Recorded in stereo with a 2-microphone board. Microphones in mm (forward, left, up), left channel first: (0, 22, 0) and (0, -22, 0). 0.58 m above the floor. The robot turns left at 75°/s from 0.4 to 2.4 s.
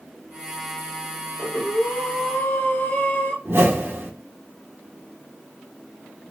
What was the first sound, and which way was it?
Breathing, 140° left.